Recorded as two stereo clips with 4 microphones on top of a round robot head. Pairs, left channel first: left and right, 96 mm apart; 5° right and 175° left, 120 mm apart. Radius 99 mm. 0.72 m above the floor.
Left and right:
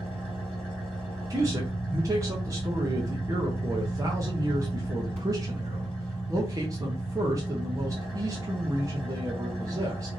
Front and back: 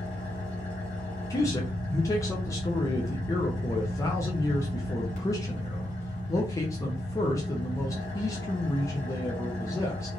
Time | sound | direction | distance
0.0 | an engine running | 25° right | 2 m
1.3 | a man speaking | 55° right | 0.7 m